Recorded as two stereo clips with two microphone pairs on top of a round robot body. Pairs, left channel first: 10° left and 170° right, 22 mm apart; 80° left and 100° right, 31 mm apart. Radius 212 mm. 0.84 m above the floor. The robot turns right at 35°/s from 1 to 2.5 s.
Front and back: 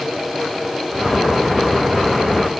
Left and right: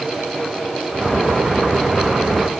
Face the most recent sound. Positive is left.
No sound to turn to.